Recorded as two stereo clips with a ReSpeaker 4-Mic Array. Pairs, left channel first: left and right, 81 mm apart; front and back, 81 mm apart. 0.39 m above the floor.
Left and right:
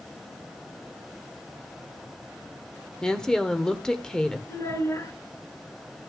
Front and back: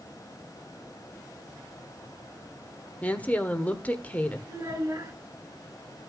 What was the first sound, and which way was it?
A woman speaking, 20° left.